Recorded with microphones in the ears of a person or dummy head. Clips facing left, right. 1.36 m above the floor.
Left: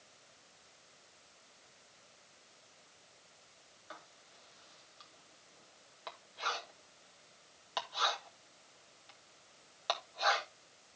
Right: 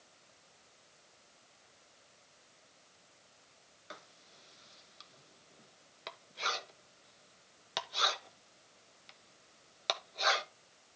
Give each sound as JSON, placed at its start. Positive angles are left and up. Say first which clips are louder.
{"t": 3.9, "sound": "writing", "louder": "right 1 dB", "side_deg": -35, "distance_m": 1.2}